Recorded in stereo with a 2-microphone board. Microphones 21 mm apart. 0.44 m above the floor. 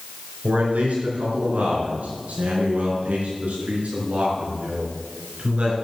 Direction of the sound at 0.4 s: 80° right.